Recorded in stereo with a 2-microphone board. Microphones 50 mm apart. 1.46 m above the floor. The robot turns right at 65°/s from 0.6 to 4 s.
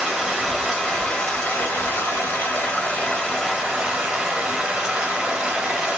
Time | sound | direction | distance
0.0 | running water | 15° right | 1.4 m